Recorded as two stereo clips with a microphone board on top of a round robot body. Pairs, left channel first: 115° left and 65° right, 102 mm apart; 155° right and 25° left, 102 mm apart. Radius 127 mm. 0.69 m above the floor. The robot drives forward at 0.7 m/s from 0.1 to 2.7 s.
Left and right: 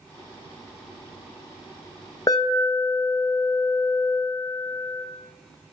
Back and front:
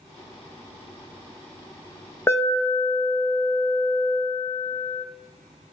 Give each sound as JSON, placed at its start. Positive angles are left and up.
{"t": 2.3, "sound": "an alarm", "azimuth_deg": 145, "distance_m": 0.8}